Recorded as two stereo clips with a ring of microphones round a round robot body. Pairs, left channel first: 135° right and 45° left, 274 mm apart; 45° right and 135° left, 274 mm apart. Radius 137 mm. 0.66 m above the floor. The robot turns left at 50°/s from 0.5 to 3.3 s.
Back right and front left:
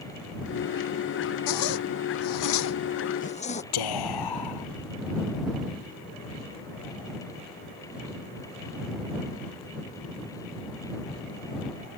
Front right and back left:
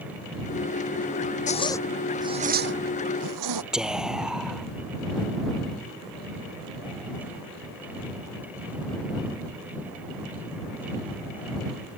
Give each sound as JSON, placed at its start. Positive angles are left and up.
{"t": 1.5, "sound": "a zipper", "azimuth_deg": -110}
{"t": 3.7, "sound": "whispering", "azimuth_deg": -140}